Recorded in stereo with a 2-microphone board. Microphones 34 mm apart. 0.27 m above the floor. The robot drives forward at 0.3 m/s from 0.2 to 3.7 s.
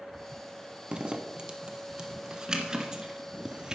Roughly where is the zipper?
Right.